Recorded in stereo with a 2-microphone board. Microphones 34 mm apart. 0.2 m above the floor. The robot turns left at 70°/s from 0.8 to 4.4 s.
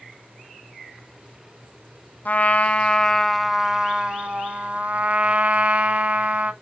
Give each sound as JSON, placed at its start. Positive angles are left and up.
{"t": 2.2, "sound": "a trumpet", "azimuth_deg": 85, "distance_m": 0.7}